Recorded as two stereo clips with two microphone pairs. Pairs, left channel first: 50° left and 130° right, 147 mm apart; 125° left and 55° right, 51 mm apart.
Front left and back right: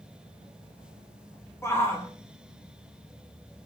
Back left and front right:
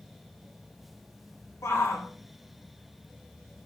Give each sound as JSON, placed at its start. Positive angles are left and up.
{"t": 1.6, "sound": "a shout", "azimuth_deg": 125, "distance_m": 1.6}